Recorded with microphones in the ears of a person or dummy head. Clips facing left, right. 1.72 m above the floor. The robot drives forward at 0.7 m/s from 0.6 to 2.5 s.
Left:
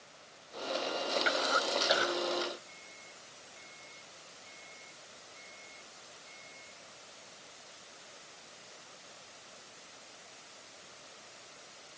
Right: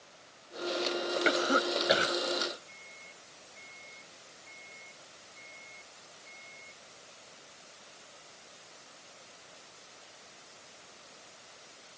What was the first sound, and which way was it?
A cough, 45° right (ahead or behind).